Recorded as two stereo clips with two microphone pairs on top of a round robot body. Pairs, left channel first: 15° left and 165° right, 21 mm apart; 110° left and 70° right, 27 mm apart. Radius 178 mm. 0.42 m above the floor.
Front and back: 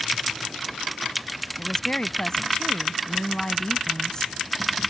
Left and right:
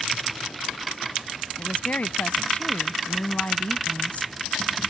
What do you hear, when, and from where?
1.6 s a woman speaking: 75° left